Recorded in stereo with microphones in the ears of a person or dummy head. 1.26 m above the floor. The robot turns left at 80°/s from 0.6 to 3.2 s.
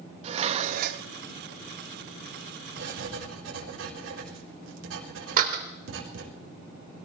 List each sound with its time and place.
0.2 s dishes clattering: 45° right, 0.9 m; by 1.1 s 80° right, 0.9 m
2.8 s writing: 65° right (ahead or behind), 4 m; by 6.3 s 80° right, 4 m
5.4 s a door slam: 50° right (ahead or behind), 2.5 m